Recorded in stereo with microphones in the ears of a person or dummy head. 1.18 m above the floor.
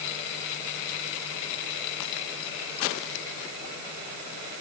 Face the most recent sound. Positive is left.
No sound to turn to.